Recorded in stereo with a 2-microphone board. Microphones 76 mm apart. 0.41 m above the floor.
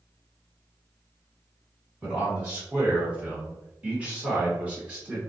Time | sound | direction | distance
2.0 | a man speaking | 15° right (ahead or behind) | 1.6 m